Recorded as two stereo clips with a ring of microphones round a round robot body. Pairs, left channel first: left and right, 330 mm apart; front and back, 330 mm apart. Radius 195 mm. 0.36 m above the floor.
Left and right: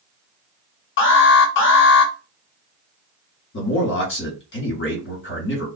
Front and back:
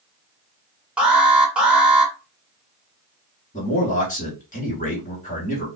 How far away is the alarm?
About 0.8 m.